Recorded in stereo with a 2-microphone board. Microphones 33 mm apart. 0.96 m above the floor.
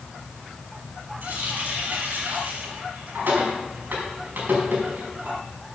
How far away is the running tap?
About 5 m.